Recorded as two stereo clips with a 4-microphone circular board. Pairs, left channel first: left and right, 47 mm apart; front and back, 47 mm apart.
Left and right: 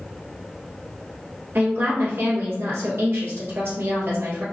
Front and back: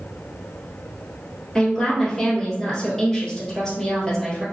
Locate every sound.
1.6 s a woman speaking: 70° right, 1.9 m